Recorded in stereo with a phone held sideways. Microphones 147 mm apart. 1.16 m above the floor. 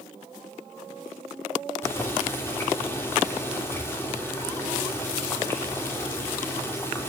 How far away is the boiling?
About 3.5 m.